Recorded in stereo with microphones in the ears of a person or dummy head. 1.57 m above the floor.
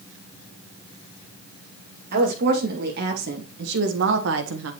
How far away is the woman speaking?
About 2.5 m.